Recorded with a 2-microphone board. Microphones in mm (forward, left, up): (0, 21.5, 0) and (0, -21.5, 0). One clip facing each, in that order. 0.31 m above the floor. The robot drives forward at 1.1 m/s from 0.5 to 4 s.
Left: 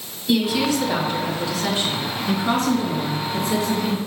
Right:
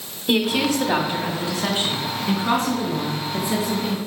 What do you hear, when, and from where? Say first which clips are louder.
0.3 s a woman speaking: even; 55° right (ahead or behind), 1.9 m; by 4.0 s 20° right (ahead or behind), 4.5 m